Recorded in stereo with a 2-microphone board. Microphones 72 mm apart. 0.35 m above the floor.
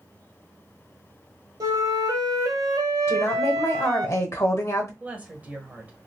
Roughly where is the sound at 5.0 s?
Right.